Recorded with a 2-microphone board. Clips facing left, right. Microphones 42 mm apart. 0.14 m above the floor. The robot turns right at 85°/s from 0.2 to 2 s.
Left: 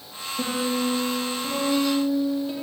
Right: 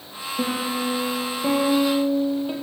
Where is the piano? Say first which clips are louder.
Even; 165° right, 4 m; by 2.5 s 30° right, 4 m.